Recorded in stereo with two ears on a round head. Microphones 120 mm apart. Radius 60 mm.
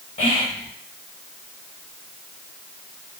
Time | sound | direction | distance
0.2 | whispering | 45° left (ahead or behind) | 1.4 m